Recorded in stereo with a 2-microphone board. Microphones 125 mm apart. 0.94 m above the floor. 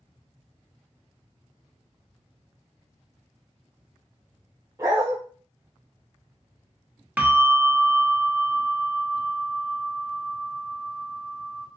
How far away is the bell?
About 0.6 m.